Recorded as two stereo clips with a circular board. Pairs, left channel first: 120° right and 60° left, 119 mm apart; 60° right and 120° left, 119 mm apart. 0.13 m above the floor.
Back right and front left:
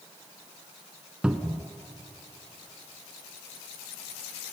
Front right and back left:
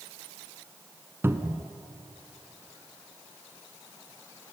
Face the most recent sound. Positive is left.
turn(degrees=125)